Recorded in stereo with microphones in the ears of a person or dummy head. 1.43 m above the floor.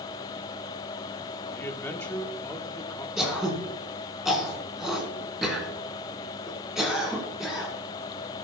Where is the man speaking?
15° left (ahead or behind), 1.5 m.